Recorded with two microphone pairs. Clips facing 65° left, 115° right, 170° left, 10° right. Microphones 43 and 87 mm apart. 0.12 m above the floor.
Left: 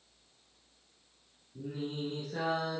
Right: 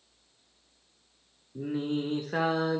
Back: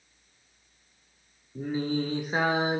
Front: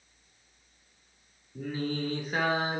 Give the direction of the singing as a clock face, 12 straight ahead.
4 o'clock.